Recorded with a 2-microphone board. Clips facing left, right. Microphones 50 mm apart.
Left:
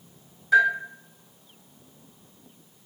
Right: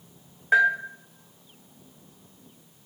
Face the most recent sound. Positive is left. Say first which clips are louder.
# even
turn(degrees=-45)  # may be behind; listen again after turning